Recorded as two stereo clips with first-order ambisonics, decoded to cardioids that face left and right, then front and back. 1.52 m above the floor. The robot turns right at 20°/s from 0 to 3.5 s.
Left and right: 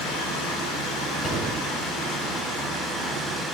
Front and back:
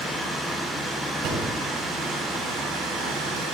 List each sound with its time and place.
0.0 s running water: 90° left, 5 m; by 3.5 s 160° left, 5 m
1.2 s a door slam: 160° left, 7 m; by 1.4 s 165° left, 7 m